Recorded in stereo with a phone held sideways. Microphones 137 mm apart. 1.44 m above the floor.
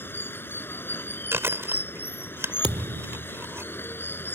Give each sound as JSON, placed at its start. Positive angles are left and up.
{"t": 0.0, "sound": "running water", "side_deg": 15}
{"t": 1.3, "sound": "chewing", "side_deg": -20}
{"t": 2.6, "sound": "a thud", "side_deg": -50}